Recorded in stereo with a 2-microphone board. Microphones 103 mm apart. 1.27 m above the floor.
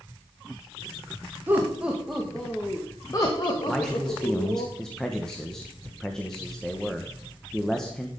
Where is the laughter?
20° right (ahead or behind), 1.8 m; by 4.7 s 65° left (ahead or behind), 2.5 m.